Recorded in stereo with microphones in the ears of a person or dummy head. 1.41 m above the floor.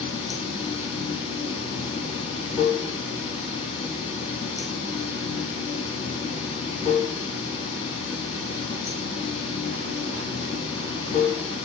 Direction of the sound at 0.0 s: 30° left (ahead or behind).